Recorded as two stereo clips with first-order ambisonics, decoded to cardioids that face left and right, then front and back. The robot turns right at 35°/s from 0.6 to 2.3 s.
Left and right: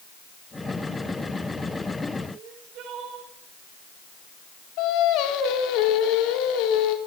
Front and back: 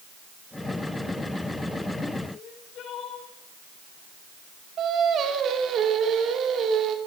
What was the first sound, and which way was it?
Crying, 50° right.